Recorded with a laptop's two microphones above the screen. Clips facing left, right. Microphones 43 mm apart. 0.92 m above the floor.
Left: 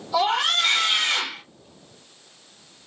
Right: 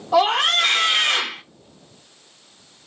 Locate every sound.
0.1 s a scream: 65° right (ahead or behind), 1.1 m